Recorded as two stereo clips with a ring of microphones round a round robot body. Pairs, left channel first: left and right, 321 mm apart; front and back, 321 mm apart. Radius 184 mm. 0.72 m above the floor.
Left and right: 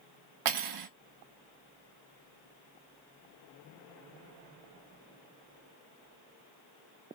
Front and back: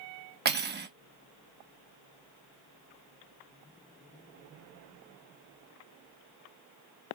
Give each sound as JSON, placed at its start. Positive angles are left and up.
{"t": 0.5, "sound": "cutlery clinking", "azimuth_deg": -120, "distance_m": 0.9}